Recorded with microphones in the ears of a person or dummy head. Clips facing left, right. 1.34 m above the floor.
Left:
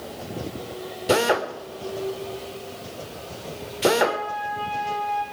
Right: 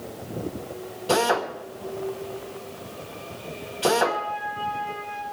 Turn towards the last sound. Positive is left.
turn(degrees=75)  # may be behind; listen again after turning